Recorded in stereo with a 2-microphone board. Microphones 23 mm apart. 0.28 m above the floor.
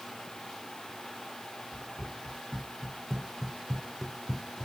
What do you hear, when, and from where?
1.7 s running footsteps: 25° right (ahead or behind), 1.8 m; by 4.7 s 40° left (ahead or behind), 0.5 m